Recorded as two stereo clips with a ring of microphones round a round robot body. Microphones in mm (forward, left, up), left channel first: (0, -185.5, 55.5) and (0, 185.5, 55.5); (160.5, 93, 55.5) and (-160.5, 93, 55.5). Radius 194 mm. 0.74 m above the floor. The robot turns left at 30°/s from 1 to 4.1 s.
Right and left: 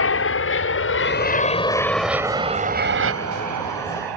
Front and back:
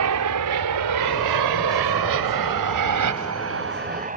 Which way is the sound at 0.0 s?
140° right.